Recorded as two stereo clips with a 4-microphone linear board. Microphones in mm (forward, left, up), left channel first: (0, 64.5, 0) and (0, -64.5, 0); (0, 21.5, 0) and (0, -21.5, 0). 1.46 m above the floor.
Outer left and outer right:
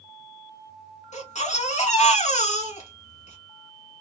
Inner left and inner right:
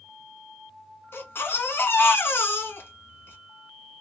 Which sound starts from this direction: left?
A baby crying, at 1.1 s.